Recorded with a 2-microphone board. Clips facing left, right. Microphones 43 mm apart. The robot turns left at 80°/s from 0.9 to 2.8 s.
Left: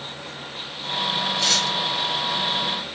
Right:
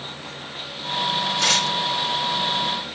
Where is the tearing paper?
105° right, 3.5 m; by 1.8 s 135° right, 3.5 m.